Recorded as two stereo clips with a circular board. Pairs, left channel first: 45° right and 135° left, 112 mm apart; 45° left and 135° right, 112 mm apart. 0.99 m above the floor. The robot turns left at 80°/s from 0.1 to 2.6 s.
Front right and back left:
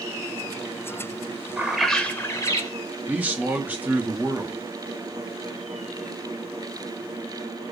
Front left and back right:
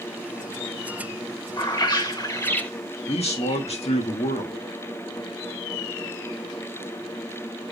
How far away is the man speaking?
About 1.6 m.